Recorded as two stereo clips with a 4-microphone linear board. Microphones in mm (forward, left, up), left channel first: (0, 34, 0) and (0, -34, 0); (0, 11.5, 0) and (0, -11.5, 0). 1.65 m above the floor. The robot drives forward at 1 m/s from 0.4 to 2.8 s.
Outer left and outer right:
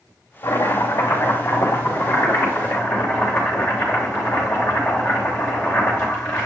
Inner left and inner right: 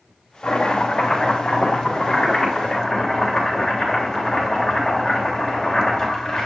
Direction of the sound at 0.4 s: 60° left (ahead or behind).